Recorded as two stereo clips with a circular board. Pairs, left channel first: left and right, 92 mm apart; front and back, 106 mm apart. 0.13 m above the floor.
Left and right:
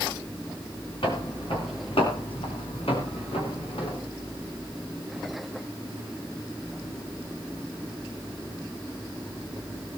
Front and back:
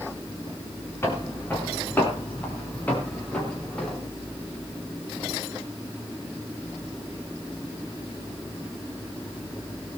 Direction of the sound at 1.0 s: 70° left.